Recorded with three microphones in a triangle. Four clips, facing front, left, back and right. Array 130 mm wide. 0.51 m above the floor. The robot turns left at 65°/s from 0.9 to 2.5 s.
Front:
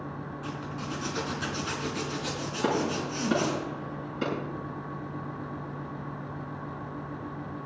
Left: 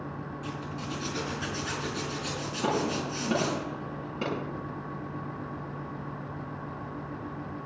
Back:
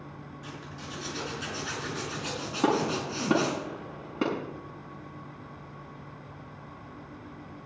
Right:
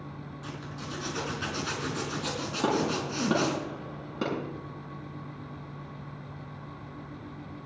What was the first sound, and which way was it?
A zipper, 15° right.